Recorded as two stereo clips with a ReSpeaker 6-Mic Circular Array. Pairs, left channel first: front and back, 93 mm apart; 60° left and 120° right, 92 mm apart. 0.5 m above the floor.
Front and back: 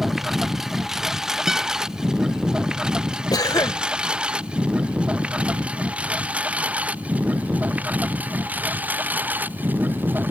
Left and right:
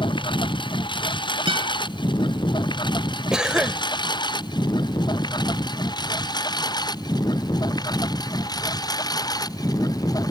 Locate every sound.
0.0 s a lawn mower: 90° left; by 10.3 s 110° left
1.5 s a guitar: 95° right
3.3 s a cough: 40° right